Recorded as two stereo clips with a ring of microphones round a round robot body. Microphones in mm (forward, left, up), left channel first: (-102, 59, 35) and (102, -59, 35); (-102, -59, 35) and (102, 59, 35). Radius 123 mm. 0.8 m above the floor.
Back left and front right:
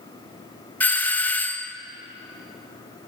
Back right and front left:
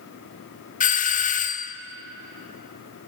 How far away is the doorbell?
About 0.9 m.